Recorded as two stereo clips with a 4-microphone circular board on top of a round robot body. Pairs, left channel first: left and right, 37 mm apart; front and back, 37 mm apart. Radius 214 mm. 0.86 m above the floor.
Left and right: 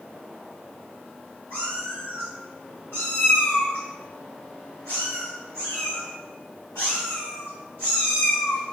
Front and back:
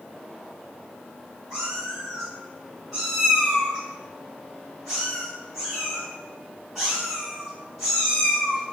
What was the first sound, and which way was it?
A cat meowing, 90° left.